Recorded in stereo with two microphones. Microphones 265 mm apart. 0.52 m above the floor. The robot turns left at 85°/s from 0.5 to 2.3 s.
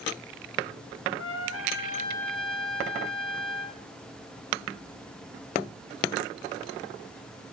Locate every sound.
1.2 s a trumpet: 95° left, 2 m; by 3.8 s straight ahead, 2 m